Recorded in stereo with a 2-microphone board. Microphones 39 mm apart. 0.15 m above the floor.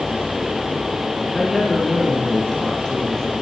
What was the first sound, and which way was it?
A woman speaking, centre (ahead or behind).